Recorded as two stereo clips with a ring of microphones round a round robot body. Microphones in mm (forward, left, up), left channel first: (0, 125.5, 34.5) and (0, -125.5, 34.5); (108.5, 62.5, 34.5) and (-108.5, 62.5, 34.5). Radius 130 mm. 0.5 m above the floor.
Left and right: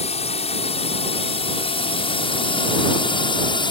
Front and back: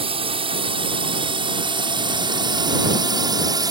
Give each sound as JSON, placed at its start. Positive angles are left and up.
{"t": 0.0, "sound": "a drone", "azimuth_deg": 135}